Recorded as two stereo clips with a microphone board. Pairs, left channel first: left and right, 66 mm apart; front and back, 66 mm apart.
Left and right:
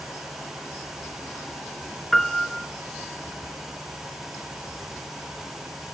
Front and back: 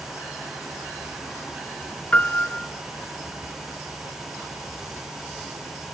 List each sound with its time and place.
2.1 s a piano: 5° left, 1.2 m